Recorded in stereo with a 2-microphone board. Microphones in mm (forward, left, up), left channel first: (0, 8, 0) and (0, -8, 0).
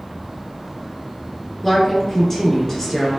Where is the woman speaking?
20° left (ahead or behind), 1.4 m.